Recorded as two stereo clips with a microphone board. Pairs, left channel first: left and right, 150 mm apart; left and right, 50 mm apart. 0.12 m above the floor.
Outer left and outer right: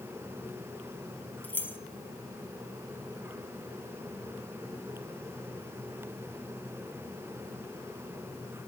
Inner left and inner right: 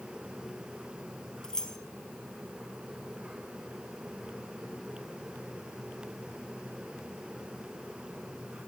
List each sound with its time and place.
1.4 s keys jangling: 10° left (ahead or behind), 1.9 m